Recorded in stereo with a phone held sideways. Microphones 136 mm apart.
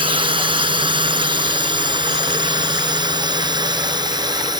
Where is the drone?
35° right (ahead or behind); by 4.6 s 30° right (ahead or behind).